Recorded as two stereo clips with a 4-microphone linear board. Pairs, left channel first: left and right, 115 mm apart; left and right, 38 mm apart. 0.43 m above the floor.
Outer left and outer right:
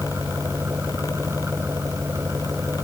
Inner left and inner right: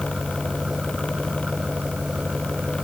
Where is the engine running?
25° right (ahead or behind).